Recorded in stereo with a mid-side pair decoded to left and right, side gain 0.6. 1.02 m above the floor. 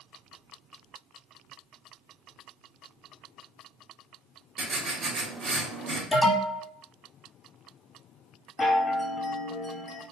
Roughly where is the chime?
Ahead.